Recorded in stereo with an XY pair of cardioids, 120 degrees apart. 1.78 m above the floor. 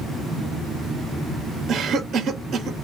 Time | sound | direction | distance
1.7 | a cough | 45° right | 1.2 m